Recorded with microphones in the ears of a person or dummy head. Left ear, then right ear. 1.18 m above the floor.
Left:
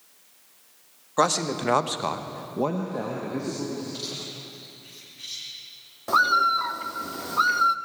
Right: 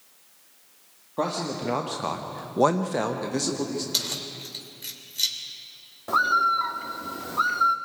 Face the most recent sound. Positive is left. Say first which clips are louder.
# left 1 dB
turn(degrees=15)  # may be behind; listen again after turning